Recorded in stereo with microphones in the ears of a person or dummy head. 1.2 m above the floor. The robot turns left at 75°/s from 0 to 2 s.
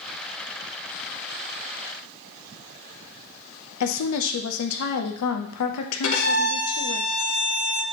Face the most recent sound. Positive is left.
turn(degrees=85)